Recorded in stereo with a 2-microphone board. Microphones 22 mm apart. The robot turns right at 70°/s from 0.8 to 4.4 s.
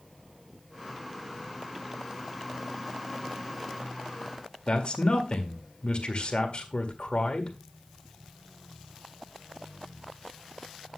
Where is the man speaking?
45° left (ahead or behind), 1.9 m.